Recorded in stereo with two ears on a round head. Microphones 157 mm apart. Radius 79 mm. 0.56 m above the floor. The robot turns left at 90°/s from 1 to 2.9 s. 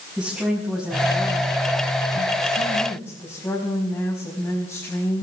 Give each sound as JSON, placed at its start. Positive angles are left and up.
{"t": 0.2, "sound": "a woman speaking", "azimuth_deg": 180, "distance_m": 5.0}